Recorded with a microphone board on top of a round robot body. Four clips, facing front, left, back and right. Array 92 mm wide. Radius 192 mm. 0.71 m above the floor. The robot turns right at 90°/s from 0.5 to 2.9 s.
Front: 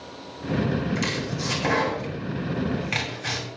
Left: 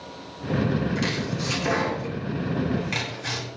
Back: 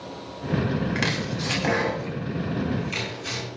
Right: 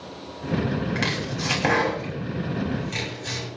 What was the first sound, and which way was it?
Chopping, 150° right.